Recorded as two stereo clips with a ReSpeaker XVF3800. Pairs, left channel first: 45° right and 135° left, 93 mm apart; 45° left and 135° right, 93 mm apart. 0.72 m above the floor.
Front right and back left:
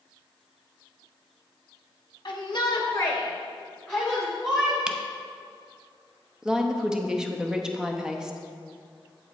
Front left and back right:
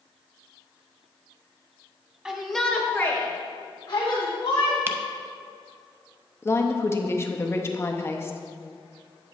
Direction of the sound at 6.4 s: 60° left.